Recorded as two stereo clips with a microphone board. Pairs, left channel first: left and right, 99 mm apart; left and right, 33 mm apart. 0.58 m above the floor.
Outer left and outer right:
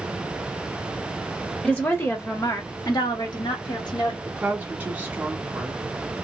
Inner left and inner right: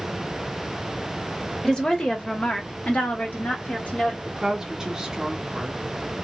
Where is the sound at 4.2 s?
20° right (ahead or behind), 1.5 m.